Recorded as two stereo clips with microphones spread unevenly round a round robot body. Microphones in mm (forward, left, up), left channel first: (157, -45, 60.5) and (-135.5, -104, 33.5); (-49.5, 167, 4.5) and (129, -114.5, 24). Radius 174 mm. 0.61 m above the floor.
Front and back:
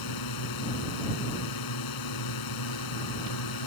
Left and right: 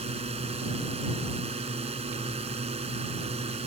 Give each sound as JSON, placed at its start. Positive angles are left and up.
{"t": 0.0, "sound": "a drone", "azimuth_deg": 15}